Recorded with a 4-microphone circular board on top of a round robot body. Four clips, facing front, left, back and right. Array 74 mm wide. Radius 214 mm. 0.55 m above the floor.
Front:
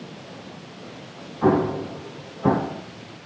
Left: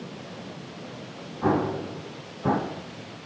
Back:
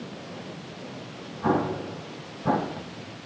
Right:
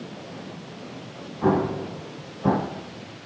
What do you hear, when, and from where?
1.4 s an explosion: 15° right, 4 m